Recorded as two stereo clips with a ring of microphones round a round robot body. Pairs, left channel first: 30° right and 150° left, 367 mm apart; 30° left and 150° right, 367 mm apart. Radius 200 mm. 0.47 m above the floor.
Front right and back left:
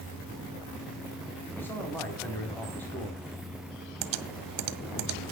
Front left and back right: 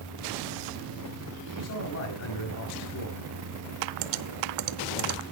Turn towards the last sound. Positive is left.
turn(degrees=180)